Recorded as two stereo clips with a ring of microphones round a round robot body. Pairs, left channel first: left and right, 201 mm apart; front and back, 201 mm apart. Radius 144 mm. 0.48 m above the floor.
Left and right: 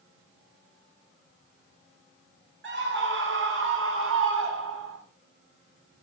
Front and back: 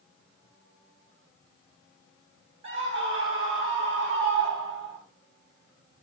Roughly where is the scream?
Behind right.